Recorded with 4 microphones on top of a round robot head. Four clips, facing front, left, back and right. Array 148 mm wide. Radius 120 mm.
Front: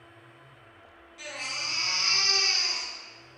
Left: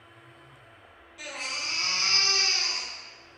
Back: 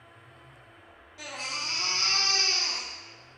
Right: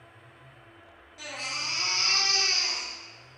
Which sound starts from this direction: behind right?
A baby crying, at 1.2 s.